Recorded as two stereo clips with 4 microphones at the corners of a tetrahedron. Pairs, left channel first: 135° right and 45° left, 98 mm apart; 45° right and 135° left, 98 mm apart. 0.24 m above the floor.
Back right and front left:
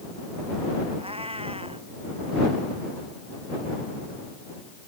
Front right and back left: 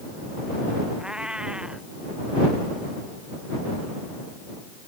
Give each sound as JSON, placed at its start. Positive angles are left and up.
{"t": 1.0, "sound": "a cat meowing", "azimuth_deg": 55}